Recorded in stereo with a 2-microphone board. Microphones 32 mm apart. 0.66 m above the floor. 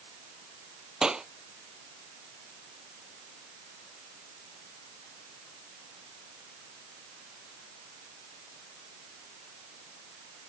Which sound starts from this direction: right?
A clap, at 1.0 s.